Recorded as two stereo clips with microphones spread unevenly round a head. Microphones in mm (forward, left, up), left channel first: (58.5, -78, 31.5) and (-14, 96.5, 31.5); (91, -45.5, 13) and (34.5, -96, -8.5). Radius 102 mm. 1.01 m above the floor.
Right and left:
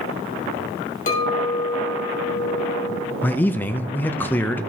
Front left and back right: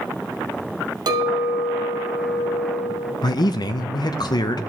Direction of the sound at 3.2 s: 10° left.